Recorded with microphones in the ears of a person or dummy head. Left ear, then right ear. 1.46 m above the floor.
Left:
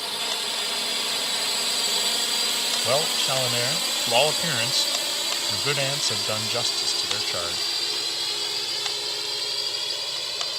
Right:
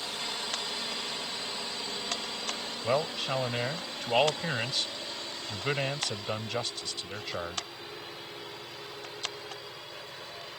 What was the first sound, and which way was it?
A drone, 25° left (ahead or behind).